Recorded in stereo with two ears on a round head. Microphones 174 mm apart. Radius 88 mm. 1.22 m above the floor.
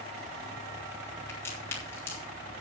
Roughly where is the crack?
Centre.